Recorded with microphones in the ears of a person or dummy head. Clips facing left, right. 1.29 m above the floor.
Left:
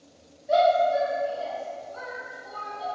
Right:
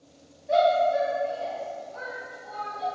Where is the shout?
5° left (ahead or behind), 1.3 m.